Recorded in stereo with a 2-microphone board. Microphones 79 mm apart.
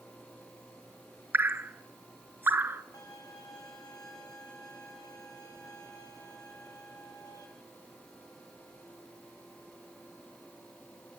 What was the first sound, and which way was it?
Dripping, 25° right (ahead or behind).